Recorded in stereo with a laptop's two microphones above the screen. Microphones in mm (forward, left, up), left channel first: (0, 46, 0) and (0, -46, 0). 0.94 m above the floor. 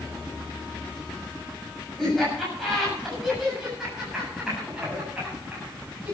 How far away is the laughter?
About 7 m.